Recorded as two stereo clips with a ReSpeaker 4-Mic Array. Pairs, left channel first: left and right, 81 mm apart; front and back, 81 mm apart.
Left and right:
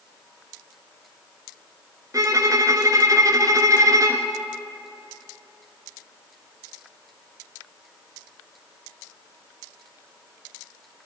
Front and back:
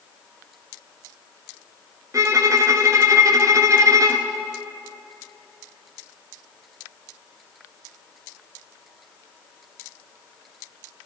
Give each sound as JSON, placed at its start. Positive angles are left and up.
{"t": 2.1, "sound": "a violin", "azimuth_deg": -135, "distance_m": 1.0}